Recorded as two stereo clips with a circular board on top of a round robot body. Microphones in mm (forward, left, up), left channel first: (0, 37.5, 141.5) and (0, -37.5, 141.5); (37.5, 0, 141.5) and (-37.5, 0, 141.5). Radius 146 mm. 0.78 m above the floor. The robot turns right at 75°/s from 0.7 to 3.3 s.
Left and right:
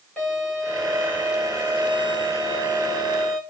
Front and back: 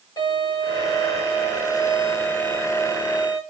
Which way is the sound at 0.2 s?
15° left.